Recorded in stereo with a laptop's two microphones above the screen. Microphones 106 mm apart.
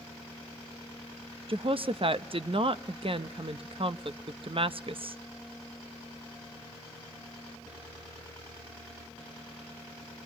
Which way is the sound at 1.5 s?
50° right (ahead or behind).